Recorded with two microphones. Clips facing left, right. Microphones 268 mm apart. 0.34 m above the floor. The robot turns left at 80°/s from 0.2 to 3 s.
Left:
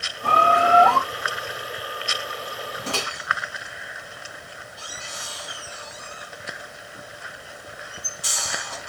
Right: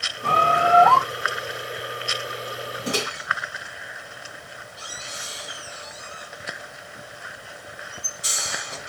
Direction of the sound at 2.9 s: 15° right (ahead or behind).